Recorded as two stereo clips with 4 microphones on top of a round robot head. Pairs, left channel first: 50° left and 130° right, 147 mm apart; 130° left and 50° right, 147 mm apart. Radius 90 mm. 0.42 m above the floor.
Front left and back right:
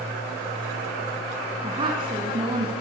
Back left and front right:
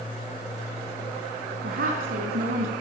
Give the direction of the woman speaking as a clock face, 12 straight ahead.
2 o'clock.